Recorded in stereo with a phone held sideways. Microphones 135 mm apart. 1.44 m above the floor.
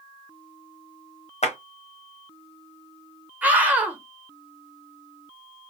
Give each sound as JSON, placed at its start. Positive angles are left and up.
{"t": 1.4, "sound": "a clap", "side_deg": 55, "distance_m": 0.9}
{"t": 3.4, "sound": "a scream", "side_deg": -10, "distance_m": 0.7}